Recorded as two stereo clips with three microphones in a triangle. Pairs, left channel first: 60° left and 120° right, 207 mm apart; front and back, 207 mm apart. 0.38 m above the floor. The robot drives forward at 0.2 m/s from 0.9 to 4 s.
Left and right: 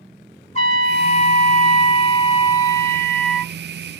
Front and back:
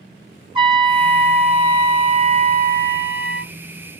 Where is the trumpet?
110° left, 0.7 m; by 3.5 s 140° left, 1.1 m.